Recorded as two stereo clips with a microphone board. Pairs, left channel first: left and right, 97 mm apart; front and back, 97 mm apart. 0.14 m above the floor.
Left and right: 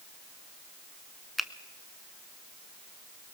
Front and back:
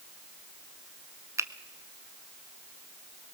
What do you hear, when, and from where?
1.4 s a finger snap: straight behind, 0.9 m